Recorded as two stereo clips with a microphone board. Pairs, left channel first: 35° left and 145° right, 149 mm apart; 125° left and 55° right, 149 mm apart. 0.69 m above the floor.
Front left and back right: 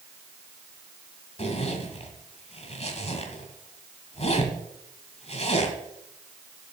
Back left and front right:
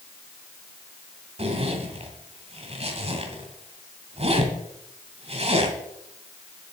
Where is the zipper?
10° right, 1.8 m.